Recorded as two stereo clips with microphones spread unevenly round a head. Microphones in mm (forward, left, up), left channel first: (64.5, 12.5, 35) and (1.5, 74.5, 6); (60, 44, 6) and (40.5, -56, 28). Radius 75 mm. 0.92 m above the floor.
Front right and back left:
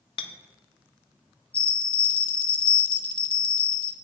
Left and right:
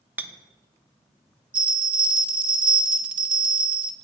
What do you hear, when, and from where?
0.2 s a clink: 25° right, 1.0 m
1.5 s a bell: 20° right, 1.3 m